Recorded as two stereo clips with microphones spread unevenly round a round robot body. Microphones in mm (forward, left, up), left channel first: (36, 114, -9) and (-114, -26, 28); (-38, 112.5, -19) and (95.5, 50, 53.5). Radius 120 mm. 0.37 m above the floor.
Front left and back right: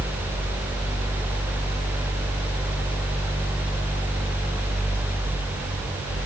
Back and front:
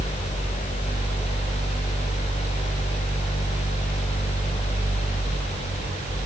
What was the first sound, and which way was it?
Only background noise.